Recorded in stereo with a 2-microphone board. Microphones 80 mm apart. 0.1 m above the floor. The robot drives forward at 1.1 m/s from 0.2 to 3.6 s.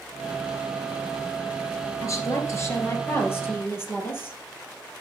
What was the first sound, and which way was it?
A woman speaking, 40° left (ahead or behind).